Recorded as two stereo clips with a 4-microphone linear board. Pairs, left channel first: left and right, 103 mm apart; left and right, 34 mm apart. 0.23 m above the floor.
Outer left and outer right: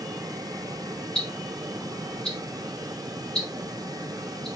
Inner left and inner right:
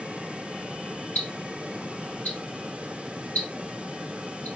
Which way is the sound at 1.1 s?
80° left.